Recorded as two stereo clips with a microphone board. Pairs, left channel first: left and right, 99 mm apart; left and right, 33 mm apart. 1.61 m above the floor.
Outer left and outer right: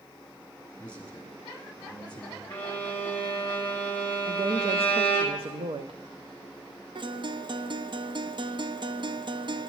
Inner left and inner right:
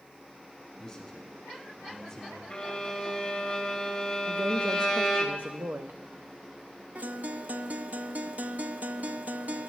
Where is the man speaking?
15° left (ahead or behind), 4.5 m.